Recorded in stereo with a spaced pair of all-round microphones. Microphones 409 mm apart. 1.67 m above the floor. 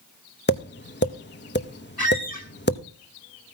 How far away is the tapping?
About 0.8 m.